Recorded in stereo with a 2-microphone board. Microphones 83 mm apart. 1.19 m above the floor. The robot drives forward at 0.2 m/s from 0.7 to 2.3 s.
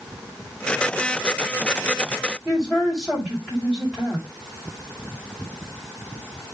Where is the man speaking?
10° left (ahead or behind), 5.5 m.